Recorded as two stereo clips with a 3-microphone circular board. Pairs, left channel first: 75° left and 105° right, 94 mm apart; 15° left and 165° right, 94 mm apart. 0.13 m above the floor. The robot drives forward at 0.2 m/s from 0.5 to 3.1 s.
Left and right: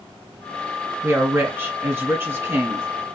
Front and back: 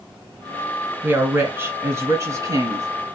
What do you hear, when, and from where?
1.0 s a woman speaking: 130° right, 1.1 m; by 2.9 s 150° right, 1.3 m